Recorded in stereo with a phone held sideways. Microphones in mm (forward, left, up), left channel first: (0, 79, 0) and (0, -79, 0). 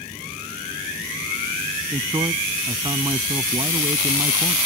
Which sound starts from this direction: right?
A man speaking, at 1.9 s.